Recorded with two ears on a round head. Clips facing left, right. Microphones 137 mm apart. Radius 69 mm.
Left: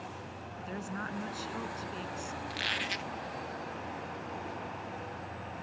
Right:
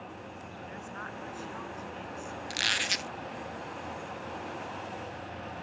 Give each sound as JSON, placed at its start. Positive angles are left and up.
{"t": 0.7, "sound": "a woman speaking", "side_deg": 45}
{"t": 2.5, "sound": "a squeak", "side_deg": -55}